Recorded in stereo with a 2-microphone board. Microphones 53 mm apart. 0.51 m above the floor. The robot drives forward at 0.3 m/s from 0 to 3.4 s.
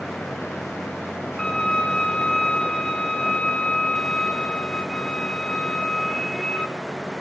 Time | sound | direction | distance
1.4 | a violin | 10° left (ahead or behind) | 0.6 m